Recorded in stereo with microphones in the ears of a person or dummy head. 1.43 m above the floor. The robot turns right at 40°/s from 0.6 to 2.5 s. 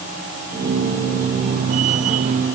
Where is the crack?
No crack in this recording.